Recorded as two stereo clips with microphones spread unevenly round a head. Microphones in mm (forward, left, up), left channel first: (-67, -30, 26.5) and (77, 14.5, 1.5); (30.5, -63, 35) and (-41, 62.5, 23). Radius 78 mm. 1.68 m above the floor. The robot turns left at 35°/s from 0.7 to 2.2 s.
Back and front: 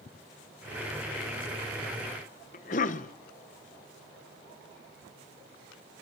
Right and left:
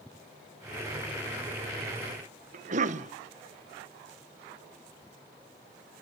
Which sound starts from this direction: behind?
A cough, at 2.5 s.